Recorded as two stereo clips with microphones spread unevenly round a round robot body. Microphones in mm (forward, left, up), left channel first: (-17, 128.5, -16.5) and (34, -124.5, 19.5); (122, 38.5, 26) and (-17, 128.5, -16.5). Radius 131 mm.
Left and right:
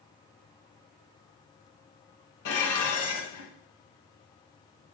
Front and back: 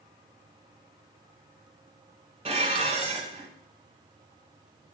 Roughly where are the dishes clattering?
Left.